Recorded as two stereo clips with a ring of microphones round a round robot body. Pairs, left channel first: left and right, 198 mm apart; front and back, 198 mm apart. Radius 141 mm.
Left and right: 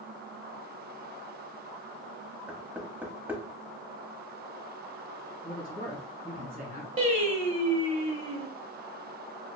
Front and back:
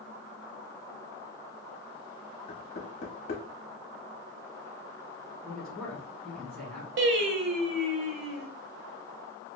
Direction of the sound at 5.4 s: 85° right.